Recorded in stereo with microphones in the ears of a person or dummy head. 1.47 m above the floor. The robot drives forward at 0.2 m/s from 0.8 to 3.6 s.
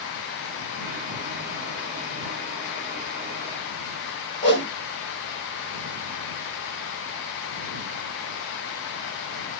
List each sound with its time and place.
4.4 s a whoosh: 25° left (ahead or behind), 0.8 m